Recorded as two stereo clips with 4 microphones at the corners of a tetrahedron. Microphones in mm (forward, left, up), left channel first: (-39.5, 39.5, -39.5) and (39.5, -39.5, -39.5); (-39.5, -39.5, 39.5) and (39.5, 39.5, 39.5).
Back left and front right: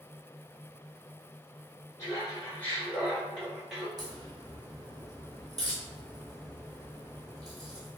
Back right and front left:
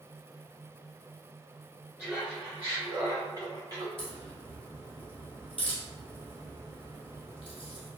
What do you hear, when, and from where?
2.0 s laughter: 125° left, 1.5 m; by 3.9 s 45° left, 1.6 m
4.0 s a crack: 100° right, 1.7 m